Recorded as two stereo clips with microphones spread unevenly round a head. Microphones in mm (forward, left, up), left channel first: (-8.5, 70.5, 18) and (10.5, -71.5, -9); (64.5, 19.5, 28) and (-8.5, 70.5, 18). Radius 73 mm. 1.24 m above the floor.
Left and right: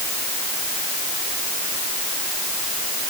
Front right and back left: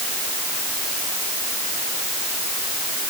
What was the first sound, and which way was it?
Only background noise.